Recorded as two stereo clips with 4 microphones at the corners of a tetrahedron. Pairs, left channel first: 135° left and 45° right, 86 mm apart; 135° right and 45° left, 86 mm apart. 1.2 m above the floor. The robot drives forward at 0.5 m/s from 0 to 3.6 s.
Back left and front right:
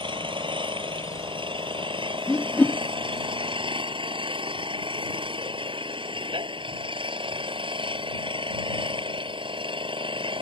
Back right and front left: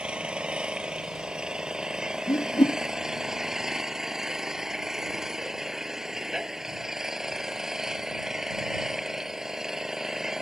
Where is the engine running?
35° right; by 10.4 s 40° right.